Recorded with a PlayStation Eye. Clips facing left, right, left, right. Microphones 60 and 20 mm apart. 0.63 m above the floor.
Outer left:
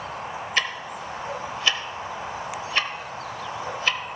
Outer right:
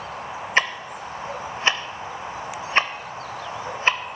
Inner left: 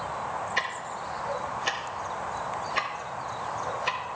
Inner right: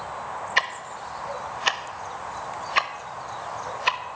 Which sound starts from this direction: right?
Ticking, at 0.6 s.